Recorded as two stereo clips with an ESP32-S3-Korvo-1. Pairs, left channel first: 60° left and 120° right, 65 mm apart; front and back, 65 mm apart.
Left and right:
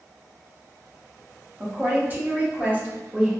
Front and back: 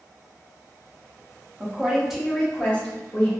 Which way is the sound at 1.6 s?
140° right.